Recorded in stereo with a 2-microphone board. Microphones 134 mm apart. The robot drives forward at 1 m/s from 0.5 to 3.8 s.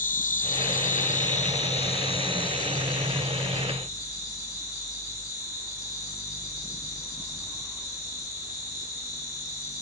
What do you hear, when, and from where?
0.0 s an insect: 85° left, 1.5 m; by 9.8 s 25° left (ahead or behind), 3.5 m